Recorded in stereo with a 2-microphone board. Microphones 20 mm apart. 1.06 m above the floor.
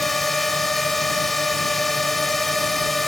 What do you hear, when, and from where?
0.0 s a drone: 10° left (ahead or behind)